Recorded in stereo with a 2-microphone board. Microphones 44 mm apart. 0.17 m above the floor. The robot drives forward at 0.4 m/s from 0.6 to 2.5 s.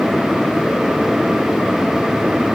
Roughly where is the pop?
No pop in this recording.